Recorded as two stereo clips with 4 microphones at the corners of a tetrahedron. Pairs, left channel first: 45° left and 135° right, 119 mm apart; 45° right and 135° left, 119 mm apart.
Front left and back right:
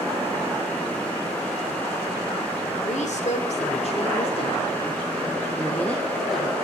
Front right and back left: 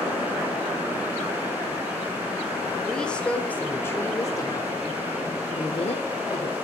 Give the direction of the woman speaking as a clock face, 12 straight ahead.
11 o'clock.